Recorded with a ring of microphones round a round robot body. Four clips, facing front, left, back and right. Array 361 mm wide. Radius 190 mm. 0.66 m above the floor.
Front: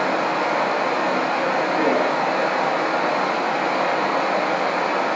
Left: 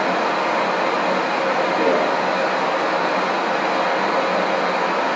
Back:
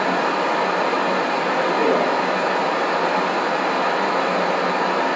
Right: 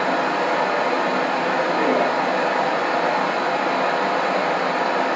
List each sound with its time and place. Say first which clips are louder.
0.0 s running water: left 1 dB, back 1 dB; 160° left, 1.6 m